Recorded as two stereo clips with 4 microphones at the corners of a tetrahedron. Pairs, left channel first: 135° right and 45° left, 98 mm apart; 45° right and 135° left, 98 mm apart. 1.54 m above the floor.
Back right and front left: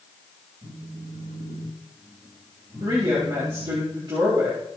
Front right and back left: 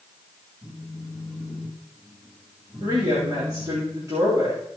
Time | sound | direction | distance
0.6 | a phone buzzing | 40° left | 6 m
2.8 | a woman speaking | 80° left | 3.5 m